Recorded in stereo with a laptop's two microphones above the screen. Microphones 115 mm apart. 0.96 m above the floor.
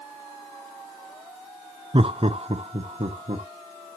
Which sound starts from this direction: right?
Laughter, at 1.9 s.